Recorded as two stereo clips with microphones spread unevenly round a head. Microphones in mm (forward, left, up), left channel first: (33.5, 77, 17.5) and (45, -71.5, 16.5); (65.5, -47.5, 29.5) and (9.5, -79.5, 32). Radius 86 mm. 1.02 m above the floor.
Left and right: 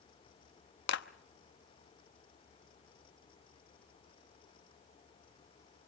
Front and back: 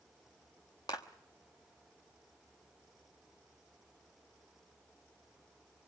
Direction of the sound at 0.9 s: 90° left.